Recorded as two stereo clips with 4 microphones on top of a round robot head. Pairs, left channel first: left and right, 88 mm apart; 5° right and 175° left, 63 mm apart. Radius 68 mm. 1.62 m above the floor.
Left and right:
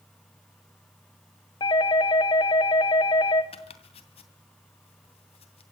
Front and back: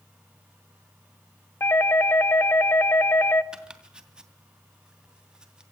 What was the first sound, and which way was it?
A doorbell, 45° left.